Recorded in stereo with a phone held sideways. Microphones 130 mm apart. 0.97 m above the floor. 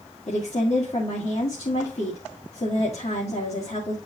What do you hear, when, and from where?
0.3 s a woman speaking: 55° left (ahead or behind), 1.5 m